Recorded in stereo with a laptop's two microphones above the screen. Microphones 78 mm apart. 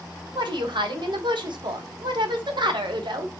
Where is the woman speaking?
80° right, 0.7 m.